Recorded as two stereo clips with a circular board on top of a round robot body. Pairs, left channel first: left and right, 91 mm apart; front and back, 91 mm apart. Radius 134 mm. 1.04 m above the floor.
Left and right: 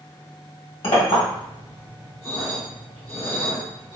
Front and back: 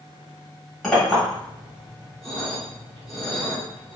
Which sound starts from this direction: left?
A clink, at 0.8 s.